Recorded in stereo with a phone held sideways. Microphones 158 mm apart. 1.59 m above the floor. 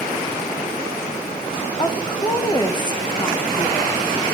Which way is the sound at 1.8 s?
25° left (ahead or behind).